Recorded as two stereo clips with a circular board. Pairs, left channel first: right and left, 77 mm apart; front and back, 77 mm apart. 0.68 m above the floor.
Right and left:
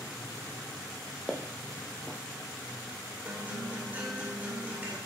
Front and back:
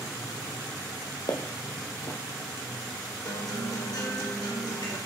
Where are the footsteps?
Straight ahead, 1.5 m.